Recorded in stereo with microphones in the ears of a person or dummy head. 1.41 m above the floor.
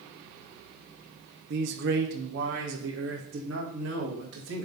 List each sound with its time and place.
1.5 s a man speaking: 60° right (ahead or behind), 0.8 m; by 4.7 s 85° right, 3 m